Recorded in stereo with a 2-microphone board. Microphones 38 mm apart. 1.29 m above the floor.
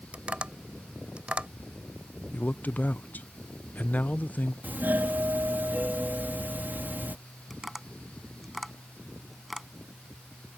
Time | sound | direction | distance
0.1 | tapping | 30° right (ahead or behind) | ?
2.3 | a man speaking | 45° left (ahead or behind) | ?
4.6 | a doorbell | 55° right (ahead or behind) | ?
7.5 | tapping | centre (ahead or behind) | ?